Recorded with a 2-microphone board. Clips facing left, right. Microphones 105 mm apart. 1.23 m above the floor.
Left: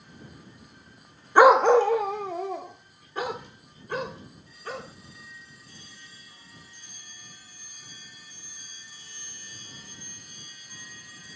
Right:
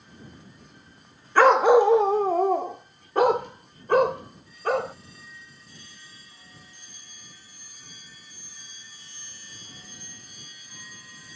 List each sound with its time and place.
1.4 s a dog barking: 15° left (ahead or behind); by 5.0 s 70° right (ahead or behind)